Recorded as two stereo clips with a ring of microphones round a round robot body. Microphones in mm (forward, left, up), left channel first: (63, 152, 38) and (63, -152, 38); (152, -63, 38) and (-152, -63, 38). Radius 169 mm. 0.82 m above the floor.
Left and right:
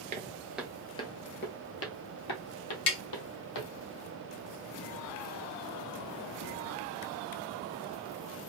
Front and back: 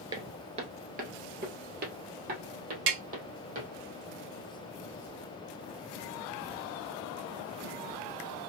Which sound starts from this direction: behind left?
Tapping, at 2.9 s.